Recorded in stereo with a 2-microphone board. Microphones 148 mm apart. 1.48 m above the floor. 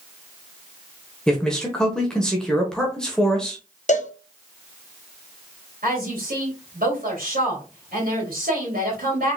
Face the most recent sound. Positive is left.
turn(degrees=-75)  # may be behind; listen again after turning